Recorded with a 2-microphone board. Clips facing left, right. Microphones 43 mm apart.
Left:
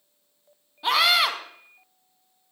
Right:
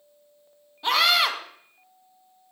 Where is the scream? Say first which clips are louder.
Even; centre (ahead or behind), 1.3 m.